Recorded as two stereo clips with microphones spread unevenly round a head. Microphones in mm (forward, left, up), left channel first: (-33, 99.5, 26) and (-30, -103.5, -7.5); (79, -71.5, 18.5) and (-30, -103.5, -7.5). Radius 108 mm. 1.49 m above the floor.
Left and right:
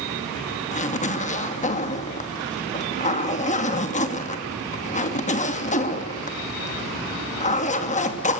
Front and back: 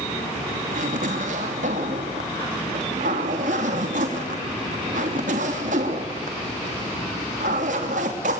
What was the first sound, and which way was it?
A zipper, 145° left.